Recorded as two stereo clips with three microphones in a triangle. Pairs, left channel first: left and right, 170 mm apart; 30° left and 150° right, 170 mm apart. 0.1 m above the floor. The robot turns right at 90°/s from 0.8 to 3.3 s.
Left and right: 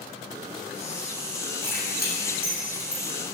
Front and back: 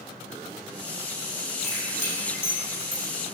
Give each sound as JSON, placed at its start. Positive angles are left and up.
{"t": 1.6, "sound": "keys jangling", "azimuth_deg": 35, "distance_m": 3.5}